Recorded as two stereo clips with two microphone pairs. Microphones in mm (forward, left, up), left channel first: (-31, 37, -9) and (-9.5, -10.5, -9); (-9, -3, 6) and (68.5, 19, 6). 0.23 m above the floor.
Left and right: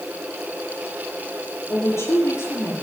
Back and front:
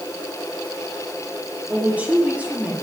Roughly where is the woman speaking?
Left.